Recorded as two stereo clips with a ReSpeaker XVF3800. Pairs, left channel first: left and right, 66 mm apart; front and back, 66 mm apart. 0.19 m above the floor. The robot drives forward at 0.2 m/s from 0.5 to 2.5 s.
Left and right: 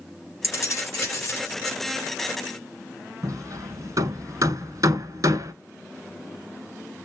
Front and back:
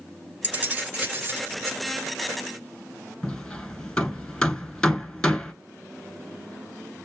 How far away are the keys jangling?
About 1.5 m.